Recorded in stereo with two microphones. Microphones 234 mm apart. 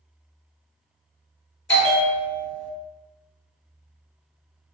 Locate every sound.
1.7 s a bell: 55° left (ahead or behind), 0.7 m